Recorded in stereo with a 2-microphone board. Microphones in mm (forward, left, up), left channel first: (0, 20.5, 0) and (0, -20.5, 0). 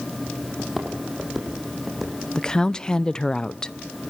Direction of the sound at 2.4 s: 20° left (ahead or behind).